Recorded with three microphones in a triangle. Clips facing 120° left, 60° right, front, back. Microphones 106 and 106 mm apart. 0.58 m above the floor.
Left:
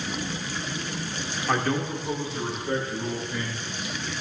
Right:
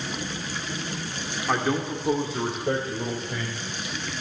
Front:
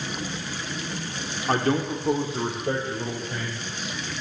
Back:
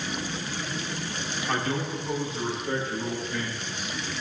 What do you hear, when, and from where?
1.5 s a man speaking: 30° left, 1.4 m; by 3.9 s 50° right, 4 m